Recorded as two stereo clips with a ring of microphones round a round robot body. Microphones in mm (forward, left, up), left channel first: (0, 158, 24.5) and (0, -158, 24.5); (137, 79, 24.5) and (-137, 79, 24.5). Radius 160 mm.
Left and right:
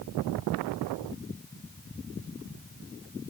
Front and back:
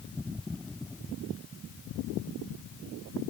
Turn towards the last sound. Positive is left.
No sound to turn to.